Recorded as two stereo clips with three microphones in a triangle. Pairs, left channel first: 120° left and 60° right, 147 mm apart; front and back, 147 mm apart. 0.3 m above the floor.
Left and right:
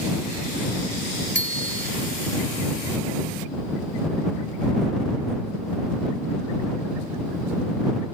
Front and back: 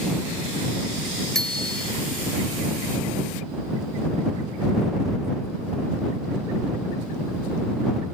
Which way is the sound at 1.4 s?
85° right.